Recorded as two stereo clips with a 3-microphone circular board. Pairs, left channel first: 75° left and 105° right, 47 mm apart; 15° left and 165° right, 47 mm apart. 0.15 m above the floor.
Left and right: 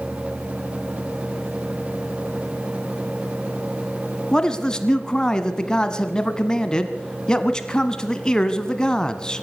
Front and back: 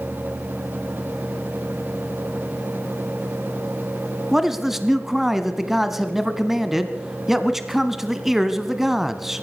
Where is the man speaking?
125° left, 1.2 m.